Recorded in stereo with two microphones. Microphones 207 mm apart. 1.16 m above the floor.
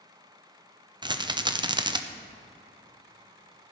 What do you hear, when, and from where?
1.0 s a rattle: 20° right (ahead or behind), 0.5 m